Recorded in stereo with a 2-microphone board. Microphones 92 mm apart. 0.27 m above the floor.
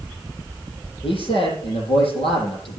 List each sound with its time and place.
1.0 s a man speaking: 80° left, 8.5 m